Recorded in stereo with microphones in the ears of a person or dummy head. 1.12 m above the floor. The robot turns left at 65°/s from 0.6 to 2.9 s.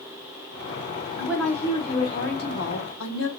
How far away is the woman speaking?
About 1.2 m.